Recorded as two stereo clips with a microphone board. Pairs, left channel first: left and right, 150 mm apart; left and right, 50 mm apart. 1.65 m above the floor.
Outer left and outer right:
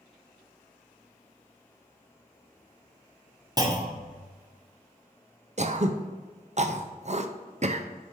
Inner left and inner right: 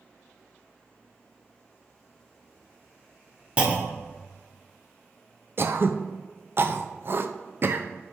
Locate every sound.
3.6 s a clunk: 25° right (ahead or behind), 1.0 m
5.6 s throat clearing: 50° right (ahead or behind), 0.5 m